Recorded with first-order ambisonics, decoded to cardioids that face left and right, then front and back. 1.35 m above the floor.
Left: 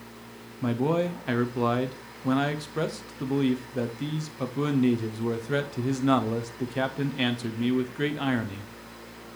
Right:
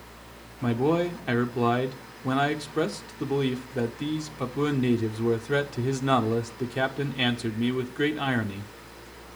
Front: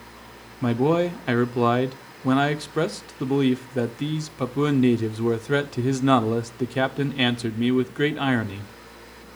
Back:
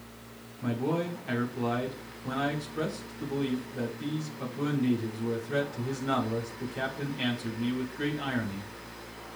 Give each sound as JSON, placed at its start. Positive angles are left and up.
{"t": 0.6, "sound": "a man speaking", "azimuth_deg": -10, "distance_m": 0.5}